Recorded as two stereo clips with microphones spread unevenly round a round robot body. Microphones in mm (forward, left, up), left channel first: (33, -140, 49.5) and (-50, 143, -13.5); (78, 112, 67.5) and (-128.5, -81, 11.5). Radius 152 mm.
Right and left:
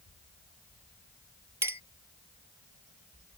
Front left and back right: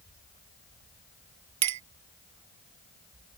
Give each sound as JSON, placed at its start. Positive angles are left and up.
{"t": 1.6, "sound": "a clink", "azimuth_deg": -170}